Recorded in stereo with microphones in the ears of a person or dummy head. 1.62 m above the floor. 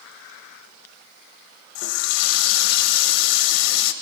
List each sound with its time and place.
1.8 s a running tap: 55° left (ahead or behind), 1.2 m